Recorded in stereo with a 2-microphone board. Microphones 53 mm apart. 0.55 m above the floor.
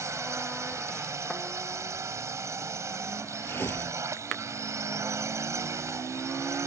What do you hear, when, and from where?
0.0 s a drone: 65° right (ahead or behind)
3.4 s tearing paper: 45° left (ahead or behind)